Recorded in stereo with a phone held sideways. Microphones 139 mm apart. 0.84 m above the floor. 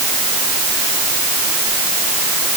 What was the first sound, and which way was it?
Only background noise.